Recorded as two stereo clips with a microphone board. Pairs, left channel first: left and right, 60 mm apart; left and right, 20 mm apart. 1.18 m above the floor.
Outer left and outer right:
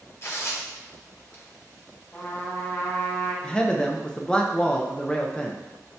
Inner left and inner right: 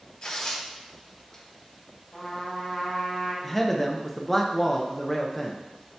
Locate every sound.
0.2 s tearing paper: 50° left (ahead or behind), 1.9 m
2.1 s a trumpet: 25° left (ahead or behind), 2 m
3.4 s a man speaking: 15° left (ahead or behind), 0.8 m